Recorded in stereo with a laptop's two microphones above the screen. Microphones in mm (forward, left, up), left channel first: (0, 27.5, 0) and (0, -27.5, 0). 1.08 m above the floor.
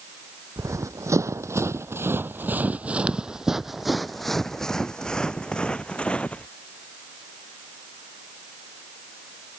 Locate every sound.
0.6 s running footsteps: 65° right (ahead or behind); by 6.5 s 20° left (ahead or behind)